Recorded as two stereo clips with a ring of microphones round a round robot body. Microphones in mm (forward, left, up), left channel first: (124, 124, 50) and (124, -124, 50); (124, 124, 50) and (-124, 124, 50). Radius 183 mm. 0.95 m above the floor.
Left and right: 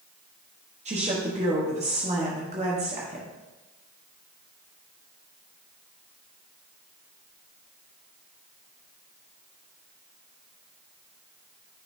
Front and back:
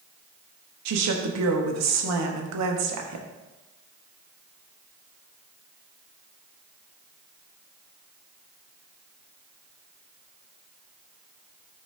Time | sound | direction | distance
0.8 | a woman speaking | 160° right | 1.2 m